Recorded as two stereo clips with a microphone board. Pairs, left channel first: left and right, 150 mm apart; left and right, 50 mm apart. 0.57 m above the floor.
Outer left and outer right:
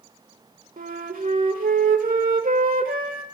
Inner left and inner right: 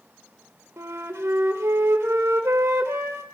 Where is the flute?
70° right (ahead or behind), 1.5 m.